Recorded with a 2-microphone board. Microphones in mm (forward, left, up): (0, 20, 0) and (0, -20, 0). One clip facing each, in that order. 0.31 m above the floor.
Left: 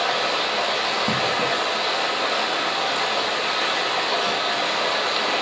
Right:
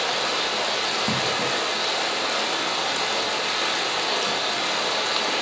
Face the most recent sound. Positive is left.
turn(degrees=20)  # may be behind; listen again after turning